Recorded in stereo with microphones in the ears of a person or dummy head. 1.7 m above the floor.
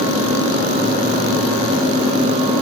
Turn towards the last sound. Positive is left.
No sound to turn to.